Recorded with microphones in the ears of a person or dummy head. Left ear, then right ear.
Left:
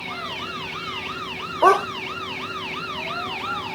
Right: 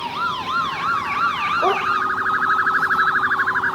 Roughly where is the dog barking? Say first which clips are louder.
Left 7 dB; left.